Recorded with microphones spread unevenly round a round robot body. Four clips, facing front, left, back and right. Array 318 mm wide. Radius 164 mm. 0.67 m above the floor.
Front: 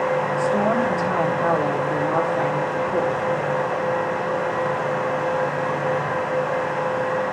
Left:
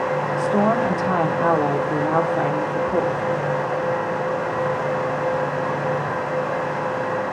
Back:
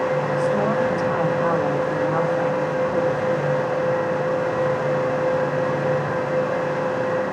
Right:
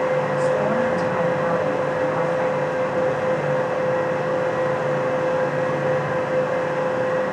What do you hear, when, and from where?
0.4 s a woman speaking: 75° left, 1.4 m